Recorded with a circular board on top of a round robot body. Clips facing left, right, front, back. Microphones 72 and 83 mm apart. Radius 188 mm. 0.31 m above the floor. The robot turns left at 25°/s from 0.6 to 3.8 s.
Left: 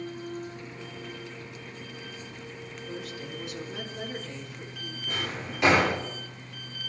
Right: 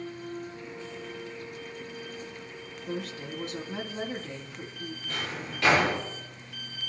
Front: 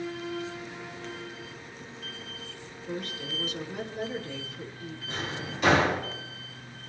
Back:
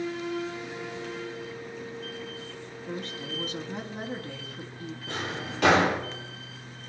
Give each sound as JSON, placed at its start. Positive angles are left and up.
{"t": 2.9, "sound": "a woman speaking", "azimuth_deg": -115, "distance_m": 4.5}
{"t": 5.1, "sound": "a drawer", "azimuth_deg": 160, "distance_m": 9.5}